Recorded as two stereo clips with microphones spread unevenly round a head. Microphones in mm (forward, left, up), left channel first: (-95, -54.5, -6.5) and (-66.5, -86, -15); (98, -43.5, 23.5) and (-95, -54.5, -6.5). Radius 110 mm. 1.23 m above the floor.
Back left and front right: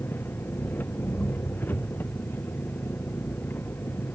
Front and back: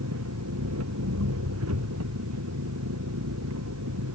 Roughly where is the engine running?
Behind.